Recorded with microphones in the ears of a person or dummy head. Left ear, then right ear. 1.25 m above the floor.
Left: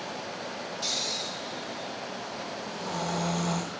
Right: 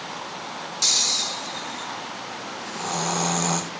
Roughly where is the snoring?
Right.